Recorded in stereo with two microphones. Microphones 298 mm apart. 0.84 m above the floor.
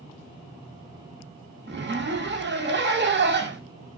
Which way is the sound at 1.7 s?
40° right (ahead or behind).